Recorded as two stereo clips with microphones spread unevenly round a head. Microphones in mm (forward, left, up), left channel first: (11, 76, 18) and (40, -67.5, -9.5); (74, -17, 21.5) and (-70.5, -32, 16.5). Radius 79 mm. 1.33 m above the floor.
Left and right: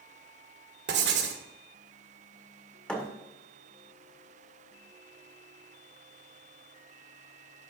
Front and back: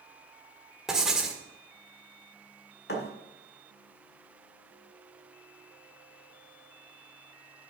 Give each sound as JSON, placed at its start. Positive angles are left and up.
{"t": 0.9, "sound": "writing", "azimuth_deg": -85, "distance_m": 1.6}
{"t": 2.9, "sound": "a thud", "azimuth_deg": 25, "distance_m": 1.8}